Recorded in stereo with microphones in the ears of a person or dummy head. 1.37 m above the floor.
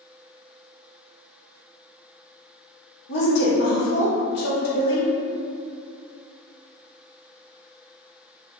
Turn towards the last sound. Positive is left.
turn(degrees=65)  # may be behind; listen again after turning